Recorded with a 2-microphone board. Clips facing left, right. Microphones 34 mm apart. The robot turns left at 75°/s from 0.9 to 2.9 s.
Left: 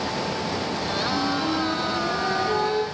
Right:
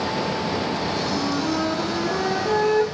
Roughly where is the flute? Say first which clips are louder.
Even; ahead.